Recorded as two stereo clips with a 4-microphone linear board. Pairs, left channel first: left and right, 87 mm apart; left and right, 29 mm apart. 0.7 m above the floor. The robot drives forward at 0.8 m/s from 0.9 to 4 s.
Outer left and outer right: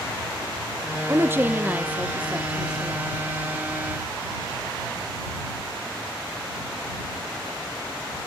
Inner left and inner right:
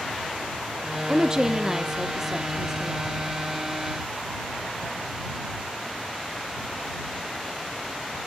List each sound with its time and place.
1.1 s a woman speaking: 30° right (ahead or behind), 0.7 m; by 3.2 s 10° right (ahead or behind), 2 m